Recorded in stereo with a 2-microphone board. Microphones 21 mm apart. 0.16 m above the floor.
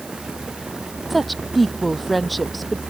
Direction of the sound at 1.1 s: Centre (ahead or behind).